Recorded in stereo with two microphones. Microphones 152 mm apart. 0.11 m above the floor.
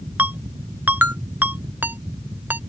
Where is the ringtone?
10° right (ahead or behind).